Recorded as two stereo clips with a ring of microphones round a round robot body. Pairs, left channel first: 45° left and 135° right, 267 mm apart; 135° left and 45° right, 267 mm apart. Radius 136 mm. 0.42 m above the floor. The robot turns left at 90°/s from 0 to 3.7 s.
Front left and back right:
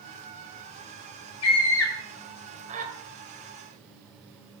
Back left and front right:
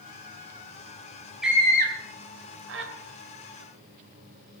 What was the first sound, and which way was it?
A scream, 45° left.